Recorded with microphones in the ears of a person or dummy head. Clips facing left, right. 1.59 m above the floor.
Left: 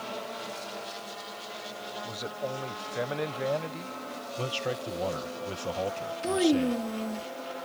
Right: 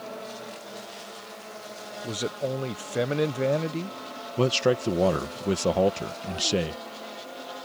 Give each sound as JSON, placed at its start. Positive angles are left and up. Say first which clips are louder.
{"t": 2.0, "sound": "a man speaking", "louder": "right 7 dB", "side_deg": -45}
{"t": 4.4, "sound": "a man speaking", "louder": "right 11 dB", "side_deg": -75}
{"t": 6.2, "sound": "a child speaking", "louder": "left 6 dB", "side_deg": 65}